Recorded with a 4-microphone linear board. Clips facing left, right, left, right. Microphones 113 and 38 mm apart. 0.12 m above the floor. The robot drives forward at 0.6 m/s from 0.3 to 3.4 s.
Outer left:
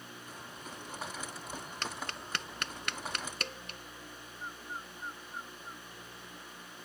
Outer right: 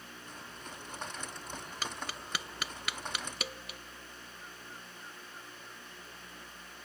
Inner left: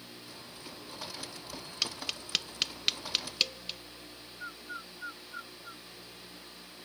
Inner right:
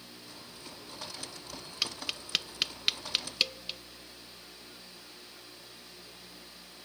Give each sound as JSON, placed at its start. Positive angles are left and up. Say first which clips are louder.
{"t": 1.8, "sound": "tapping", "louder": "even, inner right 1 dB", "side_deg": -5}
{"t": 4.4, "sound": "a bird", "louder": "outer left 10 dB, inner left 8 dB", "side_deg": 65}